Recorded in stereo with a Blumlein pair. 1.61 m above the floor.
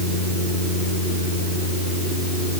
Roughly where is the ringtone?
No ringtone in this recording.